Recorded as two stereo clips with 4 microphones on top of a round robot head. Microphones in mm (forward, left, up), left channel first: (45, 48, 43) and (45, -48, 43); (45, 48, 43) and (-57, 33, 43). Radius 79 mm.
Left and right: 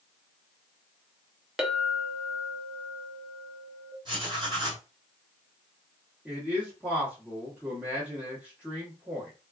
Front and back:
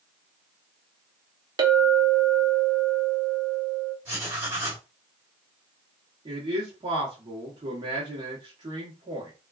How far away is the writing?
About 1.8 m.